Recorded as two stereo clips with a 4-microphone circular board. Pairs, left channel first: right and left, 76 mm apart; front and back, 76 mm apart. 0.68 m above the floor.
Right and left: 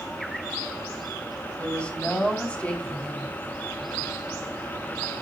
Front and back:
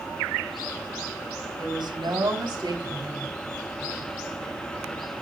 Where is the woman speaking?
165° right, 3.5 m.